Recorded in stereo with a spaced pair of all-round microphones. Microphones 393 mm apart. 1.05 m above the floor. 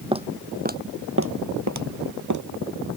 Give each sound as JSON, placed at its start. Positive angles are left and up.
{"t": 0.1, "sound": "footsteps", "side_deg": -15}